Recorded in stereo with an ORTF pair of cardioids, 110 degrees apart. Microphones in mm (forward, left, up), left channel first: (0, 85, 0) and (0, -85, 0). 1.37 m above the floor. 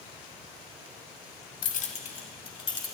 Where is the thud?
I don't hear a thud.